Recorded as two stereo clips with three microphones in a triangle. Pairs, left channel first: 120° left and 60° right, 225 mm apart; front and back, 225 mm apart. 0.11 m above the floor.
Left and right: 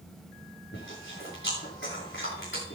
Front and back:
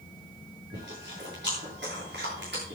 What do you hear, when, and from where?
0.7 s chewing: 145° left, 8.5 m